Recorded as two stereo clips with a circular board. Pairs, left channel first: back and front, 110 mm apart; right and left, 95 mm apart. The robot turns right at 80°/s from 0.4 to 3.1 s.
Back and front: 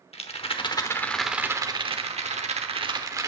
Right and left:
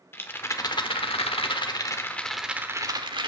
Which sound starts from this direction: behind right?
A rattle, at 0.1 s.